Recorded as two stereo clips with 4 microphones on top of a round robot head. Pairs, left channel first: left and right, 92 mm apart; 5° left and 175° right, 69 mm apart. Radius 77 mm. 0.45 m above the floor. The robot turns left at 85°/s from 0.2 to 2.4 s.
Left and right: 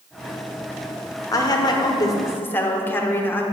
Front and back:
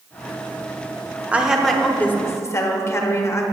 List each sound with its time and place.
1.3 s a woman speaking: 125° left, 1.0 m; by 3.4 s 30° left, 1.0 m